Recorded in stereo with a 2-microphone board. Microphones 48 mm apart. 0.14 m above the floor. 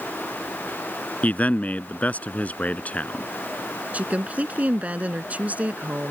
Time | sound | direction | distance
1.2 | a man speaking | 35° left (ahead or behind) | ?
3.9 | a woman speaking | 30° right (ahead or behind) | ?